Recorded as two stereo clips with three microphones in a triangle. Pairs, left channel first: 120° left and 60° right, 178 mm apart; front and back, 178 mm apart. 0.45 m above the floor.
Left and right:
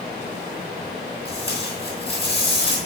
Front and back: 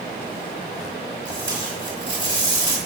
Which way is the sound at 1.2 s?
175° left.